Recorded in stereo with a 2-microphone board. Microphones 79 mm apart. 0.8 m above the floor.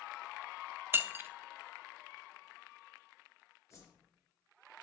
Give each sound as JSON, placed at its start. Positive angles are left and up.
{"t": 0.9, "sound": "breaking glass", "side_deg": -30, "distance_m": 0.7}
{"t": 3.7, "sound": "a whoosh", "side_deg": 35, "distance_m": 3.0}